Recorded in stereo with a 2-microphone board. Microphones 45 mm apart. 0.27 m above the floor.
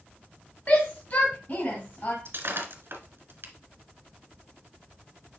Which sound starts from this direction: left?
A shout, at 0.7 s.